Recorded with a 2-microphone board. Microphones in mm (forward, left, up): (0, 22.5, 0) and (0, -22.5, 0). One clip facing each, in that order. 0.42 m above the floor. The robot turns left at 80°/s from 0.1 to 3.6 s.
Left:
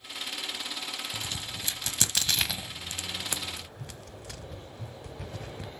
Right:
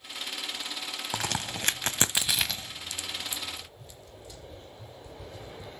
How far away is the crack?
About 0.8 m.